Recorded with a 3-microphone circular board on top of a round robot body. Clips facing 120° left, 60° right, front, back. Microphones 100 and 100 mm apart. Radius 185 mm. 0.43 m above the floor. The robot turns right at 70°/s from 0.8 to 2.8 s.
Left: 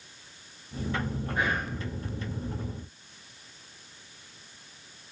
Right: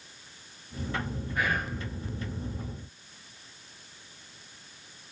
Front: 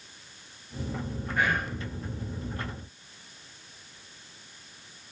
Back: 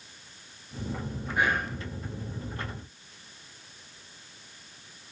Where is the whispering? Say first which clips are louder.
Even, back 1 dB; 125° left, 0.9 m; by 1.8 s 150° left, 0.9 m.